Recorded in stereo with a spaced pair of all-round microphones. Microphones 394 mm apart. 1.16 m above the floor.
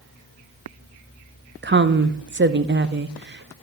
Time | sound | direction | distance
1.6 | a woman speaking | 25° right (ahead or behind) | 0.5 m